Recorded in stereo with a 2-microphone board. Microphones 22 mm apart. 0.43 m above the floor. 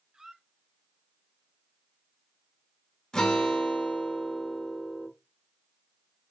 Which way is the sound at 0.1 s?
35° right (ahead or behind).